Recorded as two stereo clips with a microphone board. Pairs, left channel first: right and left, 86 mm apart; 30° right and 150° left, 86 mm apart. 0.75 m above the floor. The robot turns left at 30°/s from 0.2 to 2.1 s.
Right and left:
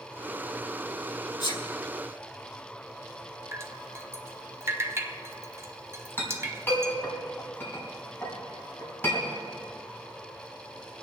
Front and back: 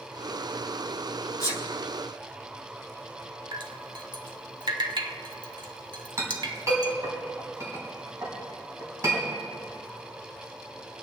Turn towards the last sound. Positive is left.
turn(degrees=-155)